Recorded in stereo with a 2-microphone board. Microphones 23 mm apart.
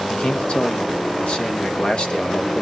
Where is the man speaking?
50° left (ahead or behind), 1.7 m.